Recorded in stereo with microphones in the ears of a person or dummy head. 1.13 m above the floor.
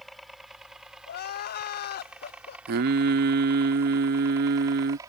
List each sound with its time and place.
0.0 s a helicopter: centre (ahead or behind); by 5.1 s 20° right (ahead or behind)
1.1 s crying: 50° left (ahead or behind)
2.7 s singing: 55° right (ahead or behind)